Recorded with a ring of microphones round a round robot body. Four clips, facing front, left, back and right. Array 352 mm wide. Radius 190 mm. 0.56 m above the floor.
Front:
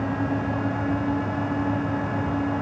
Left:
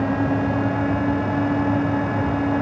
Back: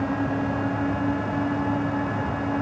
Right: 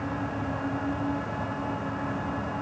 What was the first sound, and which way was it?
Only background noise.